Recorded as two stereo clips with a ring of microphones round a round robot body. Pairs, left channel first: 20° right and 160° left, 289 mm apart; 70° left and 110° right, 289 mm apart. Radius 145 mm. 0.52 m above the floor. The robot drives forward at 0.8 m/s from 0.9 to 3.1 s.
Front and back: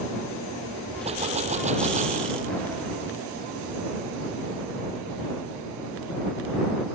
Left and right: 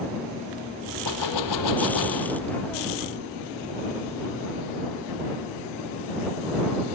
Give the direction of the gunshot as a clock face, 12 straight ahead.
9 o'clock.